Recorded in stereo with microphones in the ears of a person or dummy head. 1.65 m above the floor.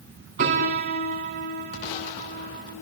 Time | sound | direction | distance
0.4 | a piano | 40° right (ahead or behind) | 3 m